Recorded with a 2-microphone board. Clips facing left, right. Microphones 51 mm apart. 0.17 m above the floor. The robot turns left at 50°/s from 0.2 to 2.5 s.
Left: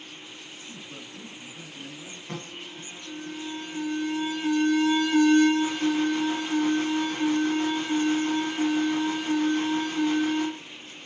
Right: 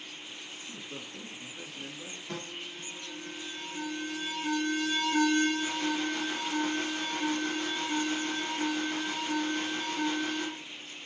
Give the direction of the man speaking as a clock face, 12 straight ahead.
6 o'clock.